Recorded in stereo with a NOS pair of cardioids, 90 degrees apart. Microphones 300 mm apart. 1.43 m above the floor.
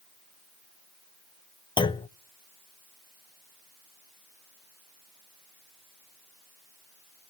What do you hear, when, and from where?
1.8 s a clunk: 15° left, 0.5 m